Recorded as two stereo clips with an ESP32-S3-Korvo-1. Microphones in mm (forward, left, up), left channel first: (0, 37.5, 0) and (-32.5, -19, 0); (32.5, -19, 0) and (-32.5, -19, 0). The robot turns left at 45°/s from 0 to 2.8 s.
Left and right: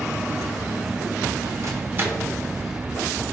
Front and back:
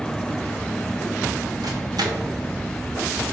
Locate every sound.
1.6 s a microwave: 160° right, 0.6 m; by 2.3 s 170° left, 0.6 m